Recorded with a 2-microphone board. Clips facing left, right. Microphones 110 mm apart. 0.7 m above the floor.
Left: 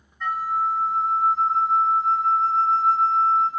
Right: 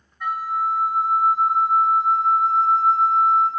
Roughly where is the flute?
Centre.